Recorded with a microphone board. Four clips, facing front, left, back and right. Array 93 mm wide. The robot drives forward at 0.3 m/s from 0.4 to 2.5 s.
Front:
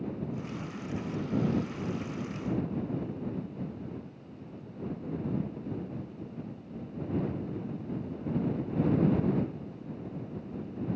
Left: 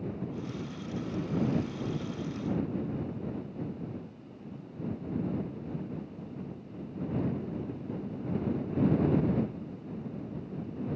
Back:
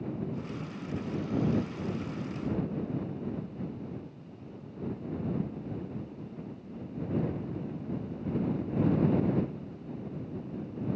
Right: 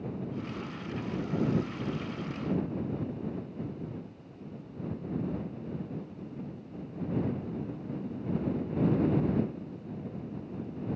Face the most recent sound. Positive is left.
No sound to turn to.